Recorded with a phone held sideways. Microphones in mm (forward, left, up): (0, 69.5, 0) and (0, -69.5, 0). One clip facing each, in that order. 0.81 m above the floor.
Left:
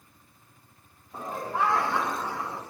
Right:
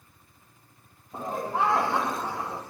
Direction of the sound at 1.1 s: 25° right (ahead or behind).